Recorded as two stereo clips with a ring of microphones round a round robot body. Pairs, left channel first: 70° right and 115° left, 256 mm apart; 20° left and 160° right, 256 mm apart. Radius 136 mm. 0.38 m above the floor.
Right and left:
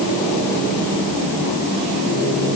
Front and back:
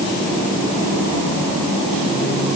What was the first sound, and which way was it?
Only background noise.